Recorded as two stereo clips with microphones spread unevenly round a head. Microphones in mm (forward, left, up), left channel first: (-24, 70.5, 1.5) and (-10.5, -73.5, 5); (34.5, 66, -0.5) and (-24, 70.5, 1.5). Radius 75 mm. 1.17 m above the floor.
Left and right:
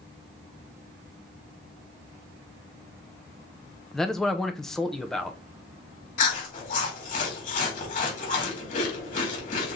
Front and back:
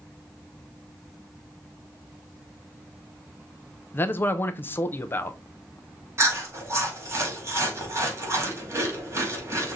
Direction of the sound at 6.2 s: 130° left.